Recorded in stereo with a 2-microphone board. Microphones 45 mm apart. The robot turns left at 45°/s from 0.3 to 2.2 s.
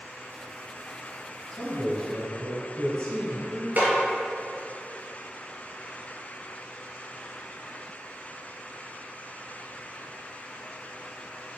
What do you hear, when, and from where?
1.5 s a man speaking: 165° left, 1.9 m; by 3.7 s 135° left, 1.9 m
3.8 s a snare drum: 40° right (ahead or behind), 1.9 m